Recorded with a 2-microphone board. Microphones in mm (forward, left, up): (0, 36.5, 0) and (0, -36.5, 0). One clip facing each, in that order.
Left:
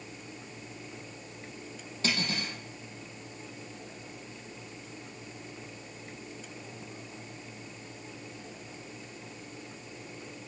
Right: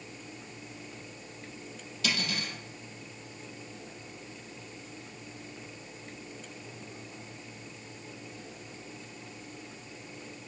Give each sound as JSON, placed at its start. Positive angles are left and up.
{"t": 2.0, "sound": "cutlery clinking", "side_deg": 35, "distance_m": 4.5}